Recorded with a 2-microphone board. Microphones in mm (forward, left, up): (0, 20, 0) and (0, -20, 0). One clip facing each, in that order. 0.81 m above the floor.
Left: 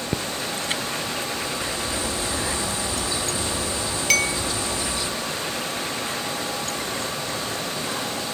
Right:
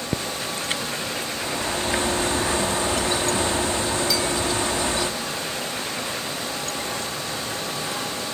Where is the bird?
55° right (ahead or behind), 1.2 m.